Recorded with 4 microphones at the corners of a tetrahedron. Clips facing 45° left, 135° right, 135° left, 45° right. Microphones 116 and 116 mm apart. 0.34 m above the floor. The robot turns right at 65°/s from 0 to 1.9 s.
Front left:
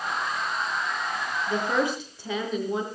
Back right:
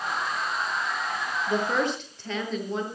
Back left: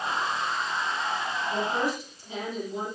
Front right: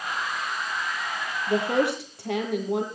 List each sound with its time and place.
1.5 s a woman speaking: 65° right, 7.5 m; by 2.9 s 35° right, 7.5 m